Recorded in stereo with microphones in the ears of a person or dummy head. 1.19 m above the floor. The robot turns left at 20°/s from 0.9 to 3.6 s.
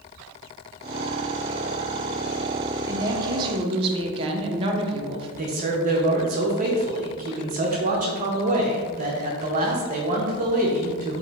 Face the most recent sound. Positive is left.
turn(degrees=-40)  # may be behind; listen again after turning